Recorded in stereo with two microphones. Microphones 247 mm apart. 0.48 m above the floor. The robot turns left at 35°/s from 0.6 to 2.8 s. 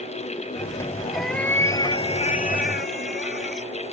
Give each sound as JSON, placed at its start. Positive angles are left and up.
{"t": 1.1, "sound": "a cat meowing", "azimuth_deg": 180}